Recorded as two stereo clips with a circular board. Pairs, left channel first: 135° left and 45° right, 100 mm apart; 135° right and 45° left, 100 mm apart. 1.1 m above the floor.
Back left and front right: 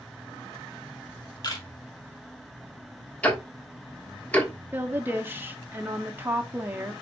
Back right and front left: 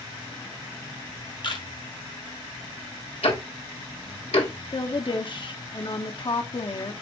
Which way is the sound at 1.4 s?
175° right.